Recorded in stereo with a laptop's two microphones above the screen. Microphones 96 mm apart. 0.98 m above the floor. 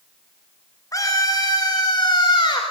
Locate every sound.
0.9 s a scream: 35° left (ahead or behind), 3 m; by 2.6 s 55° left (ahead or behind), 3 m